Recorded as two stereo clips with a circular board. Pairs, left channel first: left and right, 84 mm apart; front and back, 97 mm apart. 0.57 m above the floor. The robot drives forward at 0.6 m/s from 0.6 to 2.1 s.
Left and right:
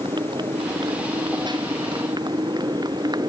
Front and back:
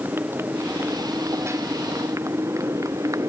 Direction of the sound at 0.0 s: 115° right.